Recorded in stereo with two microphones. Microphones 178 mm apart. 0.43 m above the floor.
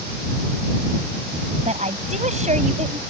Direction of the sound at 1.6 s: 40° right (ahead or behind).